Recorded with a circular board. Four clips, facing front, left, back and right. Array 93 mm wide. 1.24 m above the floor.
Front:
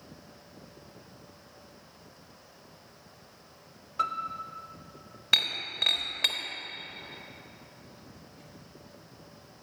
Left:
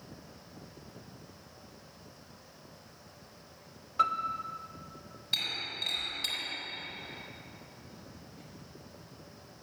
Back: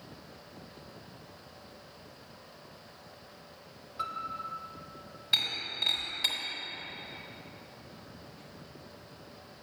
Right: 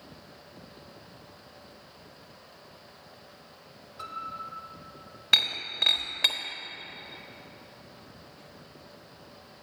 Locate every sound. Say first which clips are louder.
4.0 s a piano: left 8 dB, front 5 dB; 55° left, 0.6 m
5.3 s breaking glass: right 7 dB, front 4 dB; 55° right, 1.2 m